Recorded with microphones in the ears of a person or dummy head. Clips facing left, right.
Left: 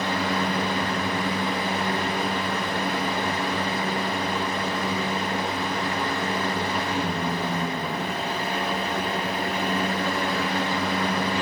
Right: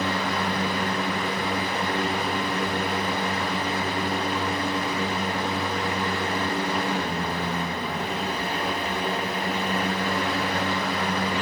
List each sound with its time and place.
0.0 s a fan: 25° left (ahead or behind), 0.8 m